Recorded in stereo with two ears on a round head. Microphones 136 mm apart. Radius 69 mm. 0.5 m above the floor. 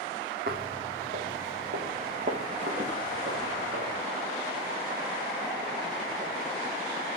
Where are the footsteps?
65° right (ahead or behind), 1.1 m; by 3.9 s 55° right (ahead or behind), 3 m.